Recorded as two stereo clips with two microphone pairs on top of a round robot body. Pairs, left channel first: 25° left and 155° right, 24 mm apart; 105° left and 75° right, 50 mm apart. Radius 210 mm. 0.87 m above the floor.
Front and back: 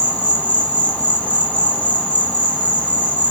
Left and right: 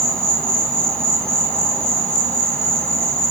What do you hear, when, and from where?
0.0 s an insect: 35° left, 4 m